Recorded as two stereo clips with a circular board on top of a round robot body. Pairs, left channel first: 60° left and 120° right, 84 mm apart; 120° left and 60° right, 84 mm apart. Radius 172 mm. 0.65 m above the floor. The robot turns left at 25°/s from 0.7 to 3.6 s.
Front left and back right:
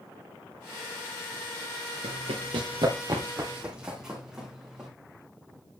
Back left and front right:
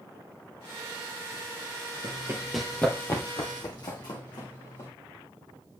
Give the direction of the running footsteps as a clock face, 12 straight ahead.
3 o'clock.